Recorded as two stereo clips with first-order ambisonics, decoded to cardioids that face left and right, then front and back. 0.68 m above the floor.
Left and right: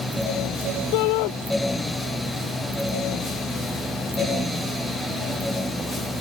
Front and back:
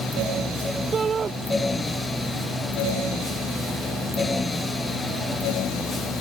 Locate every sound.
0.9 s a shout: 110° left